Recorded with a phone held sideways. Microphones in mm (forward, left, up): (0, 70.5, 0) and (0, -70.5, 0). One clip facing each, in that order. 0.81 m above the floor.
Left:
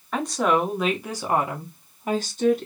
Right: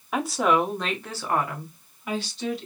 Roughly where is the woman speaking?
Centre.